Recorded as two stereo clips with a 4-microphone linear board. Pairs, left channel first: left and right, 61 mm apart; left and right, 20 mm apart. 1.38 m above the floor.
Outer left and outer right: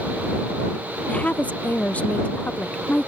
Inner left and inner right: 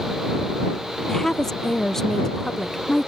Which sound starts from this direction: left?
A woman speaking, at 1.1 s.